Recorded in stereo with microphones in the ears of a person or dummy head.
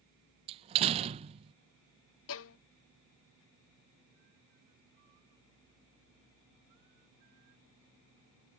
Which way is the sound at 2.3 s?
80° left.